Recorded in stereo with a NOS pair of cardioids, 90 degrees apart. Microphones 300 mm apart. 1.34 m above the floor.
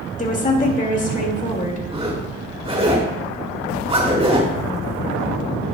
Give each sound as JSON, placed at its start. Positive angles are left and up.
{"t": 0.2, "sound": "a woman speaking", "azimuth_deg": 25, "distance_m": 2.0}
{"t": 1.9, "sound": "a zipper", "azimuth_deg": -20, "distance_m": 2.5}